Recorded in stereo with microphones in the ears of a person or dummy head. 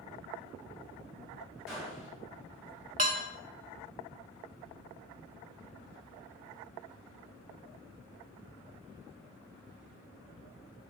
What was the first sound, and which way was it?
A gunshot, centre (ahead or behind).